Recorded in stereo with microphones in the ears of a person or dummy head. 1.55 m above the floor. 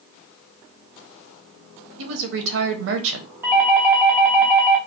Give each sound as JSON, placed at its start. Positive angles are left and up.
{"t": 2.0, "sound": "a woman speaking", "side_deg": -70, "distance_m": 0.8}
{"t": 3.4, "sound": "a doorbell", "side_deg": -15, "distance_m": 0.6}